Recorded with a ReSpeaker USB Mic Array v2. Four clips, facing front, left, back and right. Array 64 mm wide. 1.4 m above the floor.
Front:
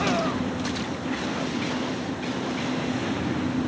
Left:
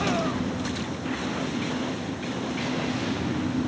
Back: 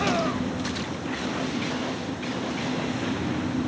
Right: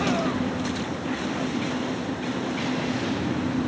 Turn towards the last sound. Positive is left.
No sound to turn to.